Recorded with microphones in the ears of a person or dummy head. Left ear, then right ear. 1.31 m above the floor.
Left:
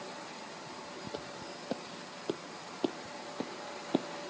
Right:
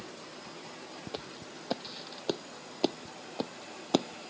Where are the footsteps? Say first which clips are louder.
Right 2 dB; 25° right (ahead or behind); by 4.3 s 60° right (ahead or behind).